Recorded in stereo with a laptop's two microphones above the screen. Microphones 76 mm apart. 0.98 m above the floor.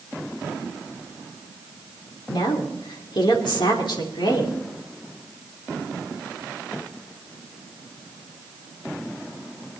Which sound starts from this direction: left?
A woman speaking, at 2.3 s.